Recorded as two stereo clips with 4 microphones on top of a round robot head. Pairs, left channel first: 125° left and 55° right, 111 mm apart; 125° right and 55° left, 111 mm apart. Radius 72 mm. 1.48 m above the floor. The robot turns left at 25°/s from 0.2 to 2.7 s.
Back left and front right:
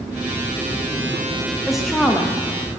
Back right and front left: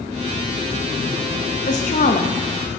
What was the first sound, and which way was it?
A woman speaking, 140° right.